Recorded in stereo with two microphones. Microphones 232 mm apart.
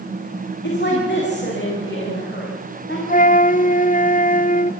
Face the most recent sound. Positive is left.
turn(degrees=35)  # may be behind; listen again after turning